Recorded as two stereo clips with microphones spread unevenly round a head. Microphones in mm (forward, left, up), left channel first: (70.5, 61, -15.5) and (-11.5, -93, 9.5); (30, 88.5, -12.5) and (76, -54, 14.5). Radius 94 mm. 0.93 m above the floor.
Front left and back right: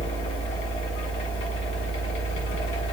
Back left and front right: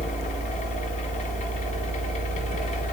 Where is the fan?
105° left, 0.9 m.